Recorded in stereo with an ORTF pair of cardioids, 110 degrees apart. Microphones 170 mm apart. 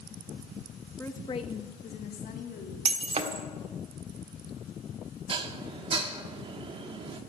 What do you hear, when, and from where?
1.0 s a woman speaking: 10° left, 1.3 m; by 2.8 s 70° left, 3 m
2.9 s breaking glass: 40° right, 1.6 m
5.3 s dishes clattering: 30° right, 1.7 m